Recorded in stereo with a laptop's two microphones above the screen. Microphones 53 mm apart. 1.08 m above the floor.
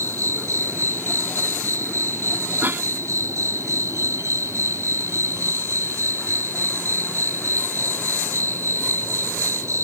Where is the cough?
40° right (ahead or behind).